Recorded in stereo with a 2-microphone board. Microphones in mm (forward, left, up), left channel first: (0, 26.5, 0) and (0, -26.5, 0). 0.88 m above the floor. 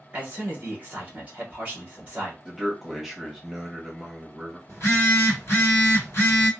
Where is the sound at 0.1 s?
20° right (ahead or behind), 1.0 m.